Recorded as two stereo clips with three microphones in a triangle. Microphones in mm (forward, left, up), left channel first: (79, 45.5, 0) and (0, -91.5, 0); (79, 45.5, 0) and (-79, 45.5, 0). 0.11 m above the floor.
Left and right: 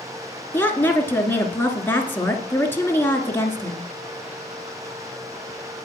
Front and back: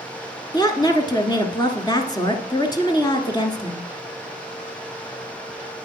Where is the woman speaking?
Straight ahead, 1.3 m.